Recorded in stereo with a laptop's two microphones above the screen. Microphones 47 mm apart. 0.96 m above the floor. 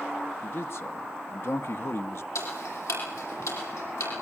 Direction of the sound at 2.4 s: 85° left.